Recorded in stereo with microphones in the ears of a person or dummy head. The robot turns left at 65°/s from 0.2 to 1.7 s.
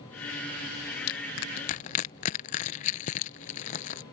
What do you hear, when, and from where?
1.1 s crushing: 45° left (ahead or behind); by 4.0 s 40° left (ahead or behind)